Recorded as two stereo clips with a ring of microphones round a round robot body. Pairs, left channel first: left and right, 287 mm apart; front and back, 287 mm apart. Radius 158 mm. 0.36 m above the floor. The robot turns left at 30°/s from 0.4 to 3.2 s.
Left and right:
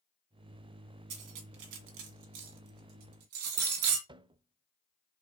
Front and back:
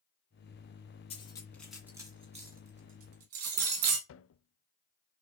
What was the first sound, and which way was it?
Cutlery clinking, 70° right.